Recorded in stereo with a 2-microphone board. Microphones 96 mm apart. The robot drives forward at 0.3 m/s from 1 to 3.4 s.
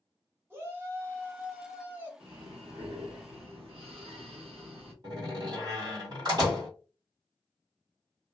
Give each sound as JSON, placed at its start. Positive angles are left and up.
{"t": 0.5, "sound": "a shout", "side_deg": -25, "distance_m": 1.1}
{"t": 2.2, "sound": "breathing", "side_deg": -75, "distance_m": 1.1}
{"t": 5.0, "sound": "a door slam", "side_deg": -45, "distance_m": 1.9}